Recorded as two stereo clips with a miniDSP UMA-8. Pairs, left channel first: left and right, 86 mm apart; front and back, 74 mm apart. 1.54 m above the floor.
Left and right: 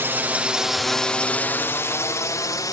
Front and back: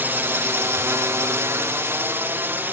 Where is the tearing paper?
No tearing paper in this recording.